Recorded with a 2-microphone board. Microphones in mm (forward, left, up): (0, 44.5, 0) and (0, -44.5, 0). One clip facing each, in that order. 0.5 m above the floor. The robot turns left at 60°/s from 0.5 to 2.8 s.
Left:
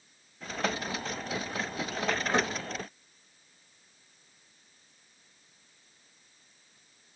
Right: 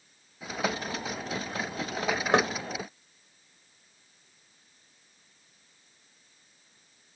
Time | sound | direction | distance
2.3 | knocking | 70° right (ahead or behind) | 1.4 m